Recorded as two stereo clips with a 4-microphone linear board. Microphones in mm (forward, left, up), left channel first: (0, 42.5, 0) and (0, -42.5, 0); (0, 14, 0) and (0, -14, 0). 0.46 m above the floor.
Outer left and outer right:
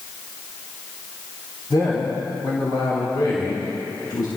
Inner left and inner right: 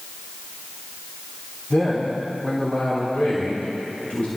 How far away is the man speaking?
About 3.5 m.